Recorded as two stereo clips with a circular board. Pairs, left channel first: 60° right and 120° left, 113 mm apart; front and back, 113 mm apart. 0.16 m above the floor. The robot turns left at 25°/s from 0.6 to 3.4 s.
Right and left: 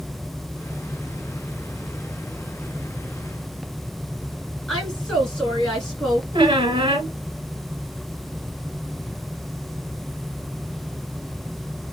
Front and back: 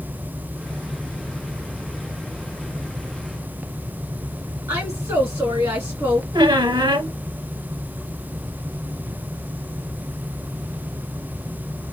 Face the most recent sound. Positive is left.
turn(degrees=150)